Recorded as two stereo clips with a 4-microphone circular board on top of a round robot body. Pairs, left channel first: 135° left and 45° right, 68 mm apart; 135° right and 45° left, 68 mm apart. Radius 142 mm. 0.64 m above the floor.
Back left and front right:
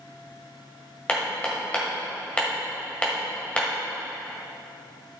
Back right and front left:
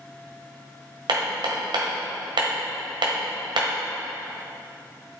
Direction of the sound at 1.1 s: 60° left.